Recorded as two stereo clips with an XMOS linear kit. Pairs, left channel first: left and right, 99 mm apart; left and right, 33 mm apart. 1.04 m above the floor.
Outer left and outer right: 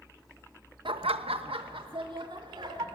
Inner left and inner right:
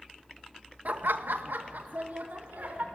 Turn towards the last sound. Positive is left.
turn(degrees=-55)  # may be behind; listen again after turning